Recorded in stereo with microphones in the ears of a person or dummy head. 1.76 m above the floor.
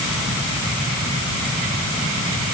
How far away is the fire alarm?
No fire alarm in this recording.